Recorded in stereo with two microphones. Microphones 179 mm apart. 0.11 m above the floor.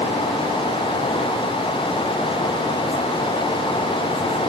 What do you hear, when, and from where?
Only background noise.